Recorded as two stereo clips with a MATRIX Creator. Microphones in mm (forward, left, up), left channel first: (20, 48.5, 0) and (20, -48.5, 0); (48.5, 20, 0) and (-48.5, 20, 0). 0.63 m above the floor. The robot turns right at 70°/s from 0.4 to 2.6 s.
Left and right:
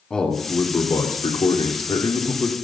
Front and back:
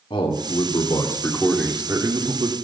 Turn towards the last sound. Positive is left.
turn(degrees=165)